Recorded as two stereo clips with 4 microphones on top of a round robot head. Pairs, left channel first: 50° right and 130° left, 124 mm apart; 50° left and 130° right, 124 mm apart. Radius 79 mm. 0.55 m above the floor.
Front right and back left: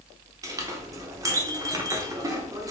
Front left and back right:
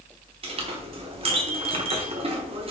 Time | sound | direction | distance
0.4 | a clink | 170° right | 0.6 m